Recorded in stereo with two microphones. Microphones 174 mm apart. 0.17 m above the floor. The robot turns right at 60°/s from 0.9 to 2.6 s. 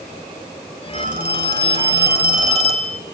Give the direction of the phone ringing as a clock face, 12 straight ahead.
5 o'clock.